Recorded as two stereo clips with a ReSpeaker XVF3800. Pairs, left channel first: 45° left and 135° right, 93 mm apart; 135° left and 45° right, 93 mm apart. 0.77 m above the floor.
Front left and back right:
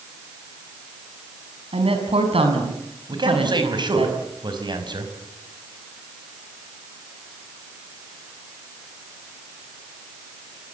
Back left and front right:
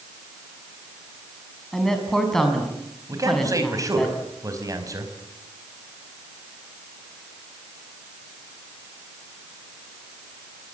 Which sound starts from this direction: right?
A man speaking, at 3.1 s.